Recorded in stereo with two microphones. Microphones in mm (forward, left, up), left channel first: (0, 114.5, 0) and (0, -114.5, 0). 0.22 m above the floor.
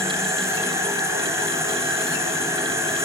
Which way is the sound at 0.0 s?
10° right (ahead or behind).